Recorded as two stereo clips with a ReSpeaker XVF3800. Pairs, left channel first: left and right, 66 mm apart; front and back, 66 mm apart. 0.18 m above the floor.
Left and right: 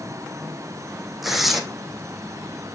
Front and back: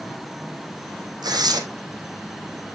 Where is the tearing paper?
175° right, 1.5 m.